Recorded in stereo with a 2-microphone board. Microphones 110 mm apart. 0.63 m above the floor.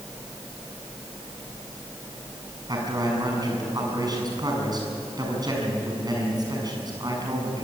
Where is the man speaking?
40° right (ahead or behind), 6.5 m.